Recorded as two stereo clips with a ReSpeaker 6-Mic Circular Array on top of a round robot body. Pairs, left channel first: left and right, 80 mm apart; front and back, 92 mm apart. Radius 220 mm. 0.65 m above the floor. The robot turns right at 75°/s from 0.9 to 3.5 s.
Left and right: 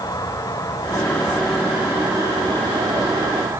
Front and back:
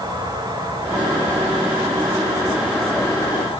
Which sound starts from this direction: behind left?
An insect, at 0.0 s.